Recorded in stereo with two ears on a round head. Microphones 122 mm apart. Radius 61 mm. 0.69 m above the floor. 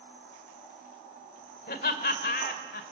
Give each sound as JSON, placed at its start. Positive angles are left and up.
{"t": 1.7, "sound": "laughter", "side_deg": 65, "distance_m": 2.5}